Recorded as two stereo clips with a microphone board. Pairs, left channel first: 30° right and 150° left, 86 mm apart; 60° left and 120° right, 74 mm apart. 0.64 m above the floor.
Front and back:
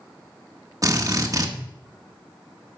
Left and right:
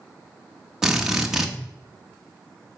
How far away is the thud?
No thud in this recording.